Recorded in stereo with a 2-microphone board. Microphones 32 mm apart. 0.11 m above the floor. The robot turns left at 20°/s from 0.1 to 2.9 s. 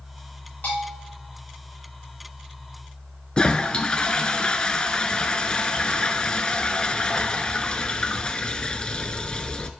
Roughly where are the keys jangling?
I don't hear keys jangling.